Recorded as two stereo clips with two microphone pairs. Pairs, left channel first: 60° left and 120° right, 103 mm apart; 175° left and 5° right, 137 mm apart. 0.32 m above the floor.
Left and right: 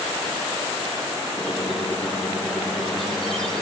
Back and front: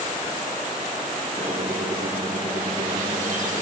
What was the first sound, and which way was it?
A squeak, 30° right.